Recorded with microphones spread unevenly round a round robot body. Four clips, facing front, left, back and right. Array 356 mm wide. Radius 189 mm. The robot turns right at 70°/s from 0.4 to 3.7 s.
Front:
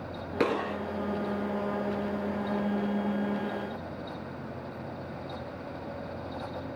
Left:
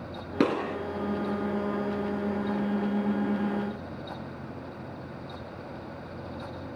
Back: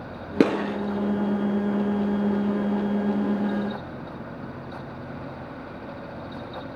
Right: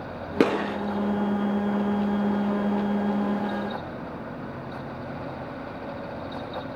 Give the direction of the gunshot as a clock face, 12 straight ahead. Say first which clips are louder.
Right 3 dB, back 7 dB; 6 o'clock.